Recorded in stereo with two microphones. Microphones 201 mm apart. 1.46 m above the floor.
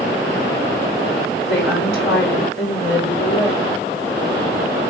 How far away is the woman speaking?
About 4.5 m.